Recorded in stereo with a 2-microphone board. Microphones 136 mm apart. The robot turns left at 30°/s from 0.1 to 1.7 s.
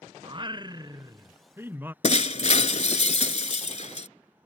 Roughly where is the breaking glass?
Left.